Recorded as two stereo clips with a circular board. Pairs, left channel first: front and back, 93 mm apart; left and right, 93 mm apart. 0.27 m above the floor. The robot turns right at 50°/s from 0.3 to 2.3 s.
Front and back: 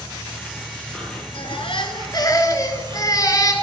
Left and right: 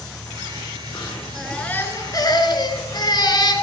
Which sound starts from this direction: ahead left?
An insect, at 0.0 s.